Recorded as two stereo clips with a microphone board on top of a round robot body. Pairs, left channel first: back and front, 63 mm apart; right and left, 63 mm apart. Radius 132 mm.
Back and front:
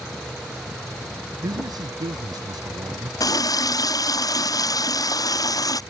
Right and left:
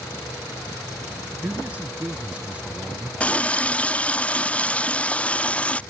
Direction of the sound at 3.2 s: 160° right.